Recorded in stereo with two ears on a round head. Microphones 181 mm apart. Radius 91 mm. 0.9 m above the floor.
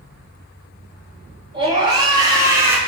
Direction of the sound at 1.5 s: 25° right (ahead or behind).